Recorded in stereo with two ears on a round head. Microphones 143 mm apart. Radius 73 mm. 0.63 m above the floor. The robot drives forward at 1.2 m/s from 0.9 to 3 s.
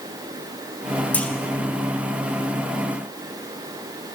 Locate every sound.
1.1 s a clunk: 10° left (ahead or behind), 0.8 m